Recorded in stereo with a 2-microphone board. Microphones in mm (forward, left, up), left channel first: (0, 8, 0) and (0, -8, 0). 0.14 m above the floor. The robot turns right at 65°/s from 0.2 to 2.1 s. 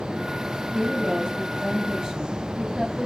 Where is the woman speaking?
155° right, 2.5 m; by 3.1 s 65° right, 2.5 m.